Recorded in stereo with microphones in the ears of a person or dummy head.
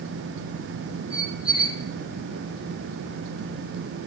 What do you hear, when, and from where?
1.1 s a squeak: 15° right (ahead or behind), 4 m